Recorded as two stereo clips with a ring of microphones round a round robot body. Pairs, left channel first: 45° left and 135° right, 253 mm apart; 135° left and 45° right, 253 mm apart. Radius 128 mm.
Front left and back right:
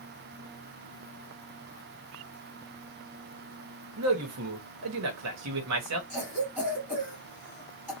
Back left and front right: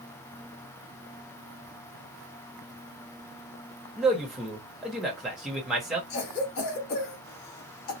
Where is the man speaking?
135° right, 1.2 m.